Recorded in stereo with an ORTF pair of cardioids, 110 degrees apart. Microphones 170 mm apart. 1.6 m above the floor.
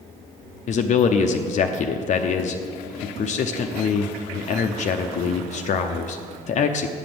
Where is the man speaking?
45° left, 0.6 m.